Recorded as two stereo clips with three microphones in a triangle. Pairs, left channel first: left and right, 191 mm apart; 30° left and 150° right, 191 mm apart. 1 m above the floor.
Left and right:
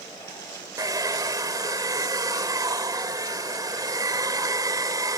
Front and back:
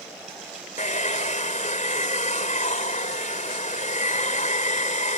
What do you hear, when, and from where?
0.8 s a hair dryer: 20° right